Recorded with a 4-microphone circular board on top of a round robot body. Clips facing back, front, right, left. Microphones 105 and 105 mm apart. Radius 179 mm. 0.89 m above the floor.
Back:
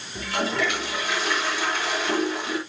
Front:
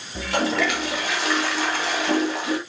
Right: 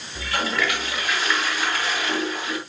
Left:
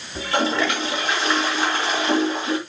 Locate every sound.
0.1 s a toilet flushing: 25° left, 2.5 m